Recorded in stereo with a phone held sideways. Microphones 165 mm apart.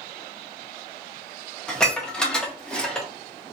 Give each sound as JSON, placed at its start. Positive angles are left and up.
{"t": 1.7, "sound": "dishes clattering", "side_deg": 5, "distance_m": 0.7}